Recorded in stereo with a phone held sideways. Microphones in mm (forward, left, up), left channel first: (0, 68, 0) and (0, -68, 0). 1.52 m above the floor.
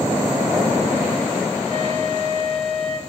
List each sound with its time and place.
1.7 s a flute: 55° right (ahead or behind), 4 m